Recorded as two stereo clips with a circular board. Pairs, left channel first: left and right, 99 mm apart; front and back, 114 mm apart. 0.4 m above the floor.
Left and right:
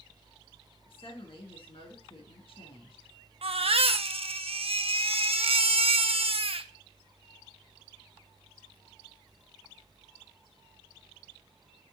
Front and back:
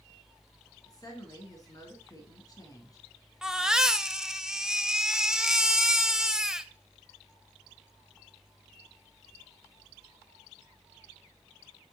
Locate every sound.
0.9 s a woman speaking: 60° left, 3.5 m
3.4 s a baby crying: 95° right, 0.7 m